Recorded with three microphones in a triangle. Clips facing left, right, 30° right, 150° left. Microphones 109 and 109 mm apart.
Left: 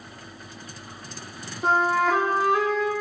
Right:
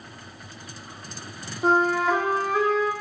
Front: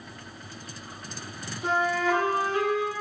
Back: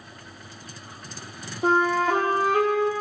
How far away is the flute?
About 1.5 m.